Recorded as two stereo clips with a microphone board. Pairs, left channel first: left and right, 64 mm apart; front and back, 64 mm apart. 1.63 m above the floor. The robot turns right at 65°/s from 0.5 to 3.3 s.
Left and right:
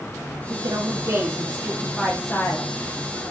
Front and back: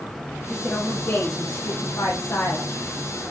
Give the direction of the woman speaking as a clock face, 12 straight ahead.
3 o'clock.